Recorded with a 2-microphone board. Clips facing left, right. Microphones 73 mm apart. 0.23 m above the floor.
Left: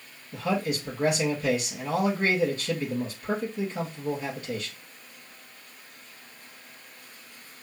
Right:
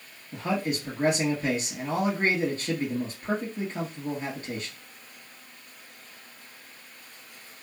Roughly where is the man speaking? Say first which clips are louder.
Left 1 dB; right.